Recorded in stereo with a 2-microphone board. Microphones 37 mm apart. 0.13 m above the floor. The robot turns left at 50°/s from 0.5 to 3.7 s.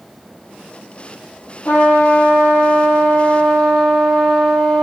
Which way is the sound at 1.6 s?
135° left.